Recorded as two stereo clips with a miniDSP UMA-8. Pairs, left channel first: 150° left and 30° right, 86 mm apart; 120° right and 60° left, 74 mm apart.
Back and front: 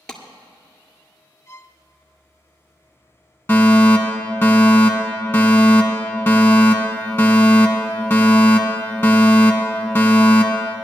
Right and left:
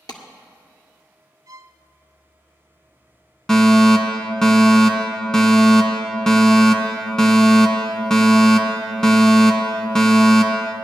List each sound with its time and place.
0.1 s a clap: 130° right, 1.7 m
1.5 s a violin: 95° left, 0.5 m
3.5 s a fire alarm: 175° left, 2 m